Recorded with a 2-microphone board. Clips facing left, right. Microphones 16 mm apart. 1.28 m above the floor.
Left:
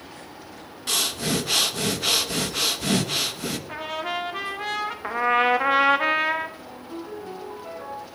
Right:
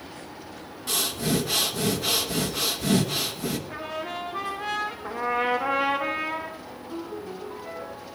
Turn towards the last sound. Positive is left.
turn(degrees=75)  # may be behind; listen again after turning